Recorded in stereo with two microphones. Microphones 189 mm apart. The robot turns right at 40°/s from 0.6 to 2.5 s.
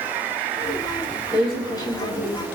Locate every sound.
1.3 s a woman speaking: 20° left, 4.5 m; by 2.5 s 65° left, 4.5 m